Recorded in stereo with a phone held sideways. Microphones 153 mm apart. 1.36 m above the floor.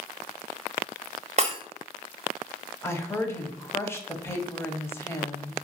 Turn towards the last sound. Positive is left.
turn(degrees=15)  # may be behind; listen again after turning